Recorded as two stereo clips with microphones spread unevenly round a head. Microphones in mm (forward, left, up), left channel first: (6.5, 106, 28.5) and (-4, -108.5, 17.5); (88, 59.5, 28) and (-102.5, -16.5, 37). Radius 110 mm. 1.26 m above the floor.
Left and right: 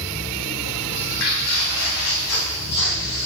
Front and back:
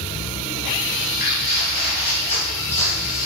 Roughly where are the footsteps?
Ahead left.